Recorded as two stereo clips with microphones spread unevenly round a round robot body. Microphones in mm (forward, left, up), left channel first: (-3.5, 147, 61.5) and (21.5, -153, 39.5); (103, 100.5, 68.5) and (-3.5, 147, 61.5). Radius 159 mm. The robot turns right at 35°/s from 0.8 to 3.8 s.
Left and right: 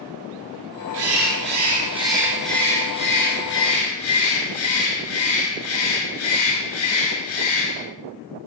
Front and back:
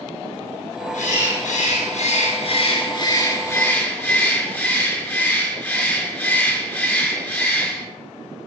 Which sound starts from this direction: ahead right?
A bird, at 0.9 s.